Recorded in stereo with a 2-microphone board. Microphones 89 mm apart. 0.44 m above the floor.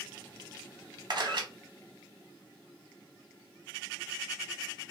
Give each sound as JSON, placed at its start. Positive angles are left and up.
{"t": 1.1, "sound": "a camera shutter", "side_deg": -60, "distance_m": 0.7}